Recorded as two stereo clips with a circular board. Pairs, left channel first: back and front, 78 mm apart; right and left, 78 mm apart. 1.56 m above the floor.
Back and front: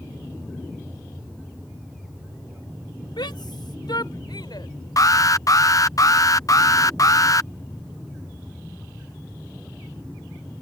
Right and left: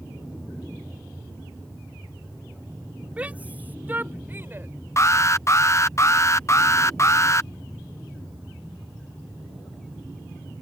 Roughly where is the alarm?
Behind right.